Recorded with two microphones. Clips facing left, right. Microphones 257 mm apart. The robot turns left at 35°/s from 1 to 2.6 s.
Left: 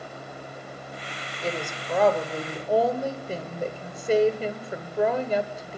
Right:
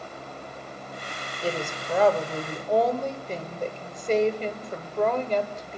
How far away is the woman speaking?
About 1.3 m.